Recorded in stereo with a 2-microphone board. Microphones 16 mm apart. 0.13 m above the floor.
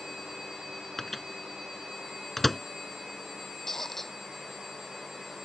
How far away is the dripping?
I don't hear dripping.